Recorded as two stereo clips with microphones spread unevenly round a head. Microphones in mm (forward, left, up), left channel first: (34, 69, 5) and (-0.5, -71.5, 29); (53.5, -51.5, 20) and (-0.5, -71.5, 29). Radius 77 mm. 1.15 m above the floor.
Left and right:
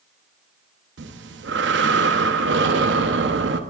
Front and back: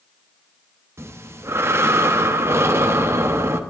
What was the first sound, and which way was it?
Breathing, 120° right.